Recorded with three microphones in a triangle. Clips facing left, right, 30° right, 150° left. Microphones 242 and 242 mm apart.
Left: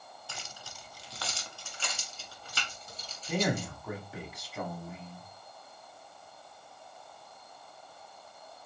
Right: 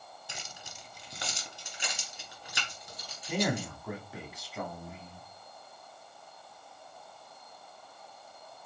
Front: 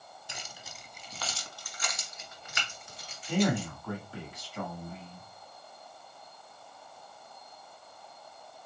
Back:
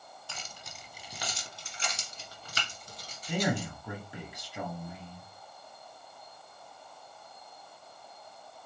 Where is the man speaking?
175° right, 1.2 m.